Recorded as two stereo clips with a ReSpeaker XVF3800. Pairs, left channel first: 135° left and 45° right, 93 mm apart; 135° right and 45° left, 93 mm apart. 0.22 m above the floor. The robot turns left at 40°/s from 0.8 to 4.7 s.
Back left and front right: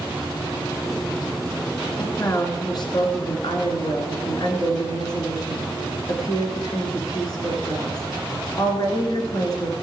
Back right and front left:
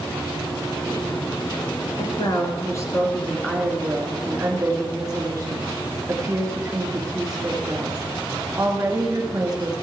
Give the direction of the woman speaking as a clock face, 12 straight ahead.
5 o'clock.